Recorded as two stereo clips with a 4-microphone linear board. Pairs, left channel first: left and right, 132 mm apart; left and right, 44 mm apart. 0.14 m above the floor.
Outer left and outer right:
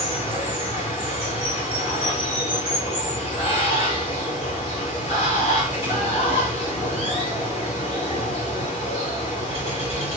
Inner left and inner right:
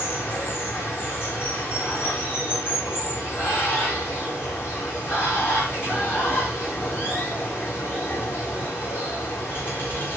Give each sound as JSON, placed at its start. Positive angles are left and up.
{"t": 0.0, "sound": "running water", "side_deg": 50, "distance_m": 6.5}